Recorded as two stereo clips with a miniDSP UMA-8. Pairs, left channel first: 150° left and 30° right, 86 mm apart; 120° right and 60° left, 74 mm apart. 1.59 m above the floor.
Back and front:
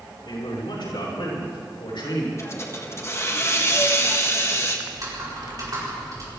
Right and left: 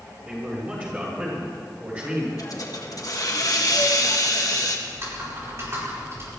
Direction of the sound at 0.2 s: 125° left.